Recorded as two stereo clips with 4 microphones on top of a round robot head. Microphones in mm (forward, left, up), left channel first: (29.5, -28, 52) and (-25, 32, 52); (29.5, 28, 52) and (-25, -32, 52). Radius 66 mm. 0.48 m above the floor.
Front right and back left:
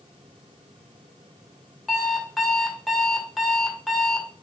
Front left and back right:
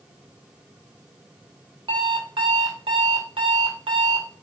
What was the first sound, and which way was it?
An alarm clock, 140° right.